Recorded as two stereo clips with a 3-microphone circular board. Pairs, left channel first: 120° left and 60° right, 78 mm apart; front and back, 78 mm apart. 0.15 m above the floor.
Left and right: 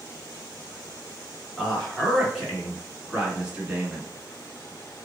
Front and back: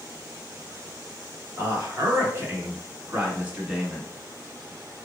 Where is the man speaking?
155° right, 1.8 m; by 4.1 s 95° right, 1.3 m.